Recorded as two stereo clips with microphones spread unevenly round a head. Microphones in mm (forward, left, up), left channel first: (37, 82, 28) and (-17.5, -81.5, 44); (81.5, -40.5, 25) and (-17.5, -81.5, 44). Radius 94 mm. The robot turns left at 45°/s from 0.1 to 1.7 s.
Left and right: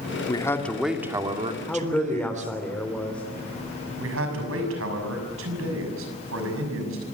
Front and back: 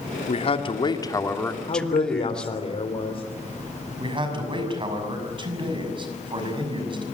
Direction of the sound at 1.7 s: 10° right.